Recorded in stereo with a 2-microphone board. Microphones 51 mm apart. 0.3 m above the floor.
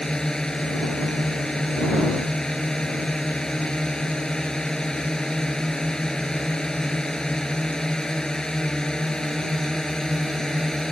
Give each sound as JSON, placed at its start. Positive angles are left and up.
{"t": 0.0, "sound": "a drone", "side_deg": 10}